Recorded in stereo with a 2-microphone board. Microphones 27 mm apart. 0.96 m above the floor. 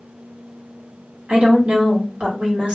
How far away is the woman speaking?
About 1.8 m.